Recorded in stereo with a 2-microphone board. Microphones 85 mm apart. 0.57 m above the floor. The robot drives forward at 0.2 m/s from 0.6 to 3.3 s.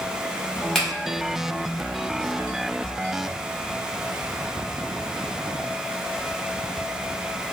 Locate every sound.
0.8 s a finger snap: 5° left (ahead or behind), 1.0 m